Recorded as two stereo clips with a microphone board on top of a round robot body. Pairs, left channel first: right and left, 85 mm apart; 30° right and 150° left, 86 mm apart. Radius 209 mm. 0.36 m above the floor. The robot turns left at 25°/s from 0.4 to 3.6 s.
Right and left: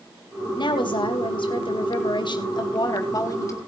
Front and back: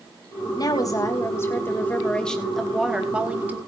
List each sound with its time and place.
0.6 s a woman speaking: 65° right, 3.5 m; by 3.6 s 145° right, 3.5 m